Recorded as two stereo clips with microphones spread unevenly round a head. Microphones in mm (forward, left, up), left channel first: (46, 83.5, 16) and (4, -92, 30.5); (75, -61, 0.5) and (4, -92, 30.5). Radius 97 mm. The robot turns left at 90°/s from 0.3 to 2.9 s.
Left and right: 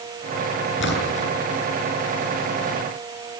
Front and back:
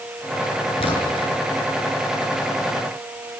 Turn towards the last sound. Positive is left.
turn(degrees=-130)